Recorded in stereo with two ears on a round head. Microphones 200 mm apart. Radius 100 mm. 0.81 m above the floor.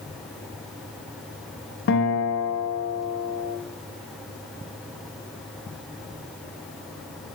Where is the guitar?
50° left (ahead or behind), 0.7 m.